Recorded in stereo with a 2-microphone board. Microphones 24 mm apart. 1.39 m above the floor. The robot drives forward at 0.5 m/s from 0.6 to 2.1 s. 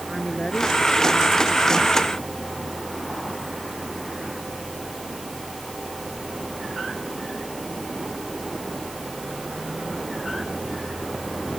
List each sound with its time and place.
0.1 s a woman speaking: 20° left (ahead or behind)